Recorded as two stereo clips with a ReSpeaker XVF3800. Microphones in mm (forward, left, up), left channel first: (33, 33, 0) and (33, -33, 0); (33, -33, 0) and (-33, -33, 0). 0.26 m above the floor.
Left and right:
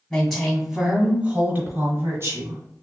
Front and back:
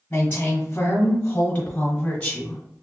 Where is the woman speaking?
30° left, 1.3 m; by 2.6 s 85° right, 1.7 m.